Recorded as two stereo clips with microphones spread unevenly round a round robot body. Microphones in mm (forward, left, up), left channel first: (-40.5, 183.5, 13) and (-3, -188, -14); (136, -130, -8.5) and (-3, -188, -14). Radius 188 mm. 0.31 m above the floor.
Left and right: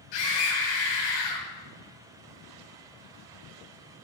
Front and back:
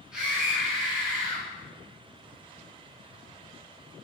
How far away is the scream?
About 1.7 m.